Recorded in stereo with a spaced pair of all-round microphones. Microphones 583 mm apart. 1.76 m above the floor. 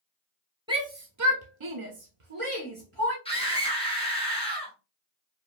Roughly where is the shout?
Centre.